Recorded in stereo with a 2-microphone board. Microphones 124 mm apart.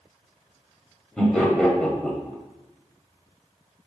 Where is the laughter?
5° left (ahead or behind), 1.0 m.